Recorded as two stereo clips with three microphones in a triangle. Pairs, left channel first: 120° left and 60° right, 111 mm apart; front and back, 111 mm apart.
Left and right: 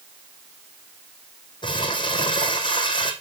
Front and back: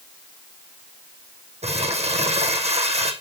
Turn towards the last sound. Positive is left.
turn(degrees=165)